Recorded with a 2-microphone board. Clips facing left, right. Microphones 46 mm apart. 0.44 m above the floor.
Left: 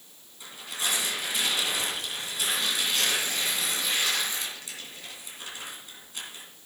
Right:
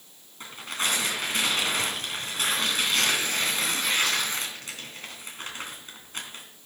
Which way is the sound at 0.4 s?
50° right (ahead or behind).